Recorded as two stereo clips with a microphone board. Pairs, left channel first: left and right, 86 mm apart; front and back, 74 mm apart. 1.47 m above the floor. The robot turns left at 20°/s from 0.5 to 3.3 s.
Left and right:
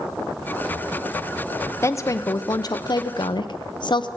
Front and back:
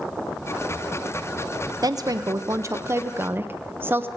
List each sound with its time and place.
1.8 s a woman speaking: 150° left, 0.9 m; by 4.1 s 120° left, 0.9 m